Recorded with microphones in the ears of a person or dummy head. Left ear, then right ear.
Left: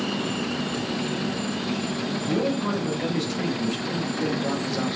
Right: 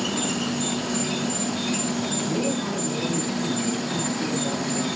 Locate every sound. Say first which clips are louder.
0.0 s an insect: right 1 dB; 80° right, 3.5 m
2.2 s a man speaking: left 1 dB; 40° left (ahead or behind), 8.5 m